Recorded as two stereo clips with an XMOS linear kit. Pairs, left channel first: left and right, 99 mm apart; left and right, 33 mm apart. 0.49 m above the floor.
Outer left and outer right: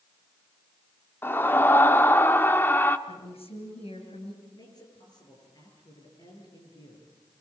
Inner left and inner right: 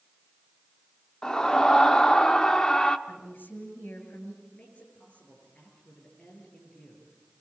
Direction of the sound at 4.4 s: 45° left (ahead or behind).